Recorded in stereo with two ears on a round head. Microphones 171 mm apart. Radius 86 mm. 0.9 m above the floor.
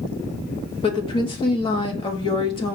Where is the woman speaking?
25° left (ahead or behind), 1.0 m.